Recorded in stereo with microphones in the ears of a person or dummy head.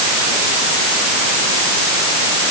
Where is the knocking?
No knocking in this recording.